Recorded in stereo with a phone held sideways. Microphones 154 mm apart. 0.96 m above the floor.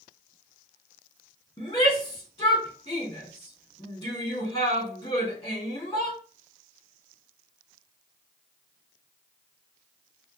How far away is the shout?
About 2.5 m.